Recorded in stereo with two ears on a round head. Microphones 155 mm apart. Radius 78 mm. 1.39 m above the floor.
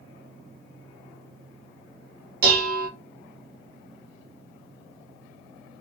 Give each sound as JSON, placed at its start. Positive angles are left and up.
{"t": 2.4, "sound": "dishes clattering", "side_deg": -60, "distance_m": 0.9}